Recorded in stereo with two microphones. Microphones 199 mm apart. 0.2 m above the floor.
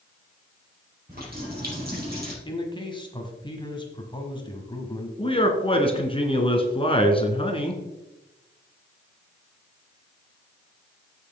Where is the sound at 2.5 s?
25° left (ahead or behind), 1.6 m.